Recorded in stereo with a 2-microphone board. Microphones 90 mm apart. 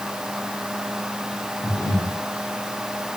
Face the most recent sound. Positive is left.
turn(degrees=20)  # may be behind; listen again after turning